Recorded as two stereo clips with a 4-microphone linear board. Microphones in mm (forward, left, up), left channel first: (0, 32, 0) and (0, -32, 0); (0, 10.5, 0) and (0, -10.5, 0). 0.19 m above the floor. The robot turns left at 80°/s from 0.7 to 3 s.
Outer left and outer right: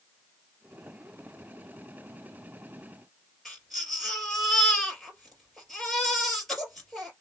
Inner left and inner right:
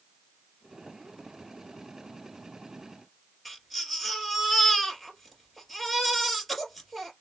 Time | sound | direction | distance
3.5 | a baby crying | 5° left (ahead or behind) | 3 m